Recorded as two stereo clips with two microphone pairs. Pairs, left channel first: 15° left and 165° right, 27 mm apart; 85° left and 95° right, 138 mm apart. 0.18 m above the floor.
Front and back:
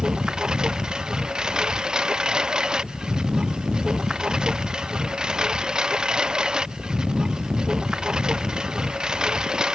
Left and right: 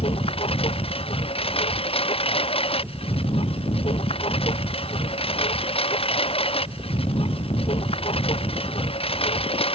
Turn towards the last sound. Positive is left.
turn(degrees=135)